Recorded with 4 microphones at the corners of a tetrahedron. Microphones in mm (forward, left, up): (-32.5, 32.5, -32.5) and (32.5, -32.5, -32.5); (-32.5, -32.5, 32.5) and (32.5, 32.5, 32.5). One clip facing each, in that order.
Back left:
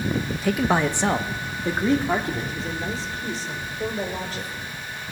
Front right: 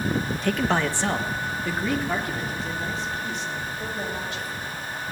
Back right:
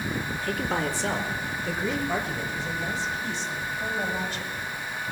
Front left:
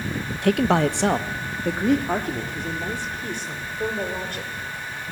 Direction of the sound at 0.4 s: 50° left.